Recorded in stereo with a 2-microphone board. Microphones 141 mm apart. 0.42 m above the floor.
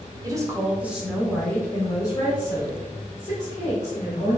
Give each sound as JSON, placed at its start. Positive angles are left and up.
{"t": 0.2, "sound": "a woman speaking", "side_deg": -25, "distance_m": 1.0}